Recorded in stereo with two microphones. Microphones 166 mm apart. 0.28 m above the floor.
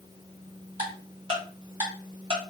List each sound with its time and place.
0.8 s ticking: 25° right (ahead or behind), 1.8 m